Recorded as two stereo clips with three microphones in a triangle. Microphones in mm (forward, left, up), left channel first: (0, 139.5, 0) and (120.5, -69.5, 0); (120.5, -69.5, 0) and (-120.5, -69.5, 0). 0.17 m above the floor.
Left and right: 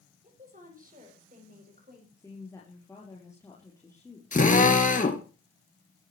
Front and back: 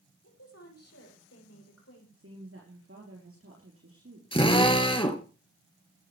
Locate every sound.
0.2 s a woman speaking: straight ahead, 7.5 m; by 2.1 s 10° right, 8 m
2.2 s a woman speaking: 165° right, 4.5 m
4.3 s a drill: 65° left, 3 m